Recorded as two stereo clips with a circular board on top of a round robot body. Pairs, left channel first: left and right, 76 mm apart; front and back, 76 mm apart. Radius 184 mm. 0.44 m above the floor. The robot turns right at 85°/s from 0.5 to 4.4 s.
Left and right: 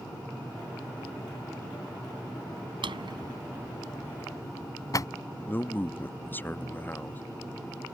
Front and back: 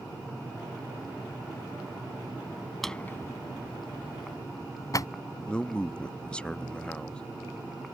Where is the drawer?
90° right; by 5.1 s 45° left.